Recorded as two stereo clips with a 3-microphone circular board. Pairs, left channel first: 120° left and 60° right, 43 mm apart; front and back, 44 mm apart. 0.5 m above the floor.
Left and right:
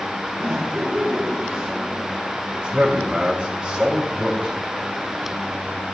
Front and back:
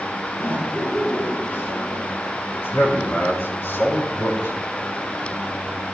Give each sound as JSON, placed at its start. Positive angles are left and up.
{"t": 0.3, "sound": "laughter", "azimuth_deg": -5, "distance_m": 6.0}
{"t": 2.5, "sound": "a man speaking", "azimuth_deg": 0, "distance_m": 5.0}